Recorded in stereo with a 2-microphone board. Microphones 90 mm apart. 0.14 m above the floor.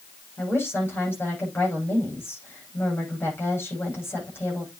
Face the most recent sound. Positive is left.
turn(degrees=25)  # may be behind; listen again after turning